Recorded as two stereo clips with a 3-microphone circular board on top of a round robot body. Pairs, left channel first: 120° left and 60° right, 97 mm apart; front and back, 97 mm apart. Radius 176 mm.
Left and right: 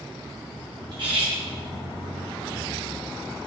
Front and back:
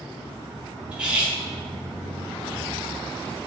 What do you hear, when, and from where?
0.9 s cutlery clinking: 100° right, 1.4 m